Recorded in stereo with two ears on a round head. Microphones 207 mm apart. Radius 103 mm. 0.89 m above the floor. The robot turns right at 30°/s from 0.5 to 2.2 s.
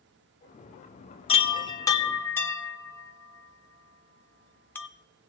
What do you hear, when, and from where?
1.3 s a chime: 25° left (ahead or behind), 0.5 m; by 4.9 s 10° left (ahead or behind), 0.5 m